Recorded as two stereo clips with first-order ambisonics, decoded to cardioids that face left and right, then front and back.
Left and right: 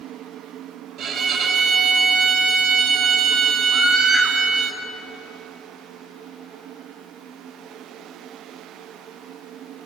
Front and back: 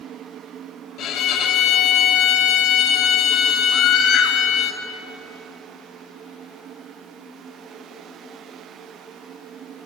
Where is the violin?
40° right, 1.8 m.